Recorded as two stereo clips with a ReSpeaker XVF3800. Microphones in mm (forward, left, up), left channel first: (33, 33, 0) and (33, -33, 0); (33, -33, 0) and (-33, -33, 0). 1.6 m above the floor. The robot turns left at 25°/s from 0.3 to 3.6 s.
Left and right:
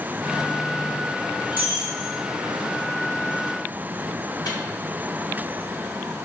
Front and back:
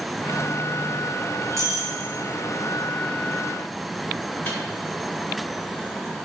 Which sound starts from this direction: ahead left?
A microwave, at 4.5 s.